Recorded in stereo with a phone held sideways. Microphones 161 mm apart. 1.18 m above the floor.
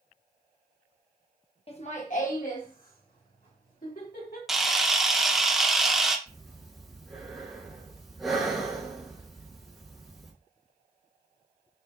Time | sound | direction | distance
1.7 | laughter | 40° left (ahead or behind) | 0.9 m
4.5 | a camera shutter | centre (ahead or behind) | 0.7 m
6.3 | breathing | centre (ahead or behind) | 1.5 m